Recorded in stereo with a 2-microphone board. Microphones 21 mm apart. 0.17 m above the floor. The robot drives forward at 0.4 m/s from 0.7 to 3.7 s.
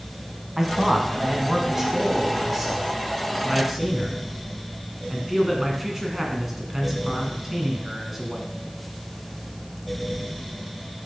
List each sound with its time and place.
0.6 s a man speaking: 20° right (ahead or behind), 1.3 m; by 8.5 s 15° right (ahead or behind), 1.7 m